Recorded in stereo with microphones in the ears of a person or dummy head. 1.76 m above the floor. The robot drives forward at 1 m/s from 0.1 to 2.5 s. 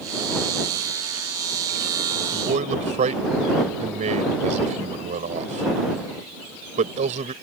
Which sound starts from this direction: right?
A man speaking, at 2.3 s.